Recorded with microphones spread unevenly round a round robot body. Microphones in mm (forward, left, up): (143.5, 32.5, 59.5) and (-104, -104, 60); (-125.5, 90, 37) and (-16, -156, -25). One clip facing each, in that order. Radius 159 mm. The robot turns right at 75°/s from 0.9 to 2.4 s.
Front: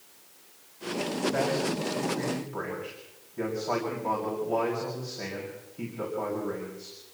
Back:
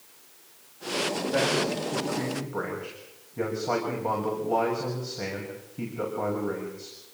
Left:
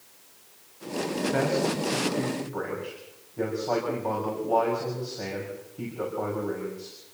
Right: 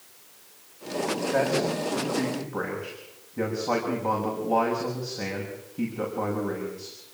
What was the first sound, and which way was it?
A man speaking, 160° left.